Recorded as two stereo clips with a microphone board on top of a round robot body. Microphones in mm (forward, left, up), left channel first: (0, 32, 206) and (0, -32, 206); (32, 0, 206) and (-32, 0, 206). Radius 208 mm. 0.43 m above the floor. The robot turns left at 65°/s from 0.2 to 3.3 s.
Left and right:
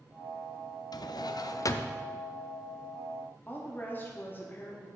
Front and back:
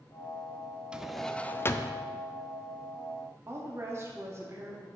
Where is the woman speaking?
140° left, 1.6 m.